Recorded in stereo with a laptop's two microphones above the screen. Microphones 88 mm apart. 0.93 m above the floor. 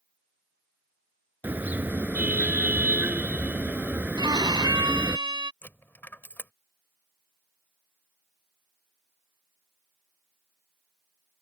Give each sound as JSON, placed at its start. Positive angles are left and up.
{"t": 1.4, "sound": "a car horn", "side_deg": -20}
{"t": 4.2, "sound": "a violin", "side_deg": -55}
{"t": 5.6, "sound": "a dropped coin", "side_deg": 25}